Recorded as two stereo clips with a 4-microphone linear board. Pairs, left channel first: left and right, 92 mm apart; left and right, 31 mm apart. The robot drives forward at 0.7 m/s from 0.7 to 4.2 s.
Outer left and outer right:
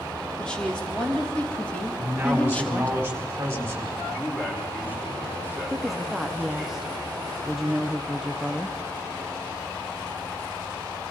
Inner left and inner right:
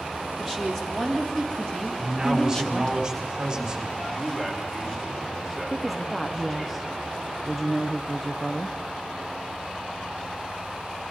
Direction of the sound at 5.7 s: 5° right (ahead or behind).